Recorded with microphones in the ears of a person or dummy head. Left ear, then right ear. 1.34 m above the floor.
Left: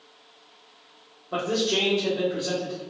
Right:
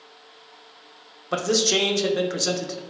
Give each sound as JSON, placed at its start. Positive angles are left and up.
{"t": 1.3, "sound": "a man speaking", "side_deg": -70, "distance_m": 0.7}